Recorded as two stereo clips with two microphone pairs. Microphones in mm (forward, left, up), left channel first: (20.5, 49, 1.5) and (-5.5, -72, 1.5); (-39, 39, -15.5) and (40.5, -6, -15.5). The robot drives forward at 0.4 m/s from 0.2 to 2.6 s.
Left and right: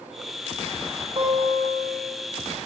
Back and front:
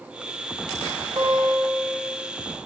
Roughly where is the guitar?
Ahead right.